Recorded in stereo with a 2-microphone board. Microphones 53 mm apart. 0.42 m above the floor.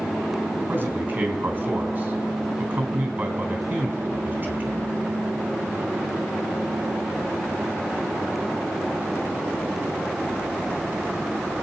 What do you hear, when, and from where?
0.7 s a man speaking: 30° right (ahead or behind), 3.5 m